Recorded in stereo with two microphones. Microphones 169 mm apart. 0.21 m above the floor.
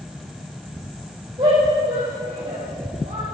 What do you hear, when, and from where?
1.4 s a shout: 35° right (ahead or behind), 7 m; by 3.2 s 50° right (ahead or behind), 6 m